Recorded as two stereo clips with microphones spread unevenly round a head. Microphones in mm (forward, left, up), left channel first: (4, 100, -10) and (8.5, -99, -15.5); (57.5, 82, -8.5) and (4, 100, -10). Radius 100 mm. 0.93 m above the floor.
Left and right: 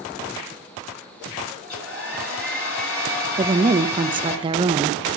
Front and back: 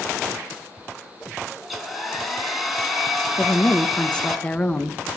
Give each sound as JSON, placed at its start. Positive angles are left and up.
{"t": 1.6, "sound": "a hair dryer", "azimuth_deg": 70, "distance_m": 3.5}
{"t": 3.4, "sound": "a woman speaking", "azimuth_deg": -70, "distance_m": 0.6}